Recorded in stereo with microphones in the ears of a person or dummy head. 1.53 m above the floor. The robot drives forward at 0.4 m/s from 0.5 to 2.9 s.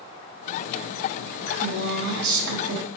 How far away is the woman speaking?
About 0.6 m.